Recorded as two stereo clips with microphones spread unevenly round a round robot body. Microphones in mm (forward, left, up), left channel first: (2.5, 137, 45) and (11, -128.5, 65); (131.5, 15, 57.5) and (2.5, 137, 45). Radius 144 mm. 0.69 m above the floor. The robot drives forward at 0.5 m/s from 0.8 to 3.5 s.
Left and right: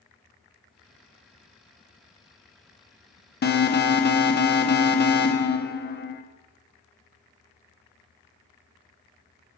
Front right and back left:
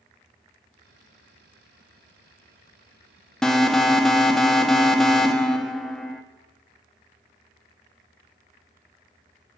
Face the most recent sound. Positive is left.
turn(degrees=50)